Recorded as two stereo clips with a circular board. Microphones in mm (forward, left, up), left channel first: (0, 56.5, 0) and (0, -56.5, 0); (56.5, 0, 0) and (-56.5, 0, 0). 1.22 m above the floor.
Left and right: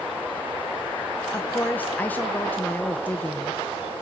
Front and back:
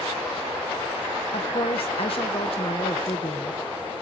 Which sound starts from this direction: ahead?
A woman speaking, at 1.3 s.